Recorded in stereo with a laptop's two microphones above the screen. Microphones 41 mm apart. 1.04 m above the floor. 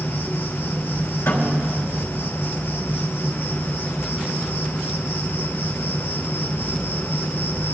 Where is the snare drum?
85° left, 3 m.